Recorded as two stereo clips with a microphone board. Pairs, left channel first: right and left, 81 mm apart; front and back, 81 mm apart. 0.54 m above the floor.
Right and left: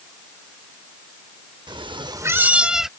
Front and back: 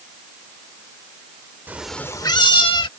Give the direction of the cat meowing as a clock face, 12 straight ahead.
8 o'clock.